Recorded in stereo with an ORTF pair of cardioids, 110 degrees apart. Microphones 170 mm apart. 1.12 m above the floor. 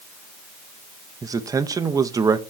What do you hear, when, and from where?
1.2 s a man speaking: 20° right, 0.7 m